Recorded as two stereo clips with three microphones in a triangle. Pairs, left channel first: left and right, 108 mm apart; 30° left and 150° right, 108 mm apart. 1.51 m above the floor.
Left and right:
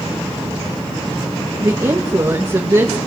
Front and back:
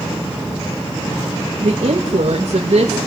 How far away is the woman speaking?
About 2 m.